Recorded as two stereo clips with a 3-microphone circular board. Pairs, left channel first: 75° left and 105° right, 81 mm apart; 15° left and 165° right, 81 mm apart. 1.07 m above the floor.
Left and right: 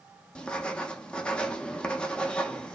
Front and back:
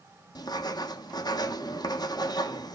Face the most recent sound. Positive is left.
turn(degrees=0)